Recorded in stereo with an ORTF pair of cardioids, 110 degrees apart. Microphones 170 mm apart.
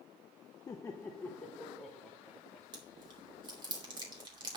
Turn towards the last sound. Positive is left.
turn(degrees=-25)